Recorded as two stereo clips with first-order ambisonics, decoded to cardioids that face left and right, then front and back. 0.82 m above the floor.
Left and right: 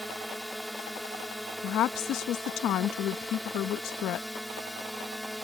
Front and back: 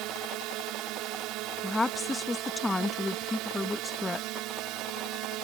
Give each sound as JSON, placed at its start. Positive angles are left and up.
{"t": 0.0, "sound": "a drone", "azimuth_deg": 180}
{"t": 1.6, "sound": "a woman speaking", "azimuth_deg": 75}